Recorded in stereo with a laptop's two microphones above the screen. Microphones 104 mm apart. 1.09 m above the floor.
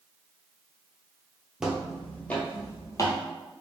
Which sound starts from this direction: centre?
Footsteps, at 1.6 s.